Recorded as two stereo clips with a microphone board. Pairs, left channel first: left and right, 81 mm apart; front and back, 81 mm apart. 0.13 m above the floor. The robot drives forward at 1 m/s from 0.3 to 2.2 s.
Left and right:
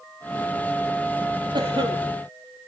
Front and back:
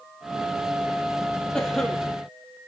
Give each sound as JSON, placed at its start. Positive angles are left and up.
{"t": 1.5, "sound": "a cough", "azimuth_deg": -80, "distance_m": 5.0}